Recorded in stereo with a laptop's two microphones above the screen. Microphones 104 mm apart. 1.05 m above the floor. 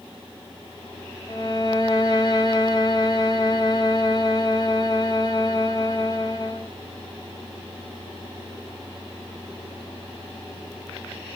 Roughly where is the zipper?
No zipper in this recording.